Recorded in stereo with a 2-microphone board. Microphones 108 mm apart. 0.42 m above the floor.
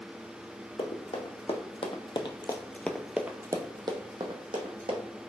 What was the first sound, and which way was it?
Running footsteps, 75° left (ahead or behind).